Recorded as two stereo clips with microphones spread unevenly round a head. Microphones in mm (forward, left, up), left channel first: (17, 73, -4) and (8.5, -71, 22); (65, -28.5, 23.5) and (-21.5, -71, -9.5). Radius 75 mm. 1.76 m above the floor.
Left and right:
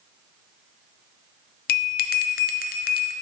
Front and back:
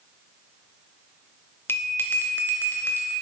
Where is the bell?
75° left, 0.5 m.